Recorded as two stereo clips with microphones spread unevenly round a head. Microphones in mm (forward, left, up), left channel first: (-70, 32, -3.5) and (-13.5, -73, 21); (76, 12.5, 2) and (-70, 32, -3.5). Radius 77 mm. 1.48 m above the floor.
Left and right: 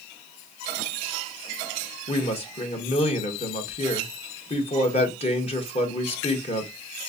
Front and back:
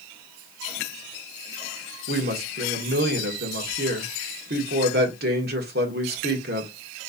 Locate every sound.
2.1 s a woman speaking: 155° left, 1.4 m